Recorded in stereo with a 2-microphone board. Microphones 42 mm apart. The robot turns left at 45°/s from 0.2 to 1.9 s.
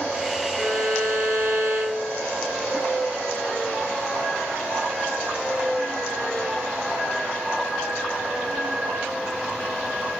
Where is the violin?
80° right, 2.0 m; by 2.3 s 140° right, 2.0 m.